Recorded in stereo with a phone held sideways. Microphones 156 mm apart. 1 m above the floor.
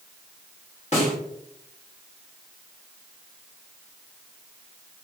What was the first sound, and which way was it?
A snare drum, 45° left (ahead or behind).